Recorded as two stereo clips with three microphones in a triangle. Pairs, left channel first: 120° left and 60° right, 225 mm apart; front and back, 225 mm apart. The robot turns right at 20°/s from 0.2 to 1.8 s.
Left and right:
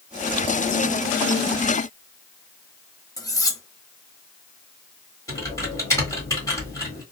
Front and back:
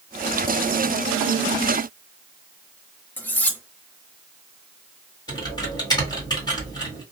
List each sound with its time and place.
3.2 s cutlery clinking: 70° left, 0.6 m
5.3 s typing on a keyboard: 55° left, 1.4 m